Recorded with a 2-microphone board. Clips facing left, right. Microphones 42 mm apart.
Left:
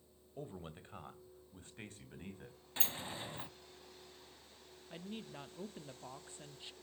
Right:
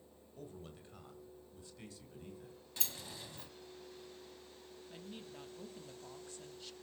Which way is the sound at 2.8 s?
35° left (ahead or behind).